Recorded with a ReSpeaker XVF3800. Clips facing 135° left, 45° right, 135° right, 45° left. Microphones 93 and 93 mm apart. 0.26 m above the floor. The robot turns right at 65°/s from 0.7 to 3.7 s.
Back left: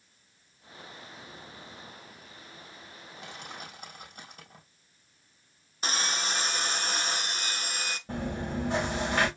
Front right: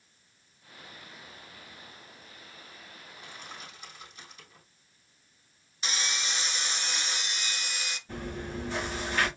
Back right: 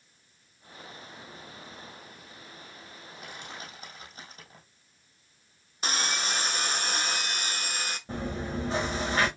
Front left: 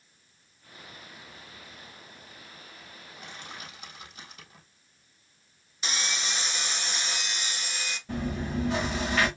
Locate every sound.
3.2 s crushing: 135° left, 4 m; by 4.7 s 170° left, 4 m
5.8 s sawing: straight behind, 0.6 m
8.1 s chewing: 165° left, 3.5 m